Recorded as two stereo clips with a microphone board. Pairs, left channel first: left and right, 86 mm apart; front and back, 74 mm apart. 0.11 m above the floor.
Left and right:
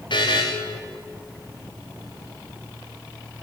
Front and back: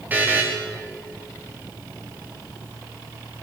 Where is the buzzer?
115° left, 5 m.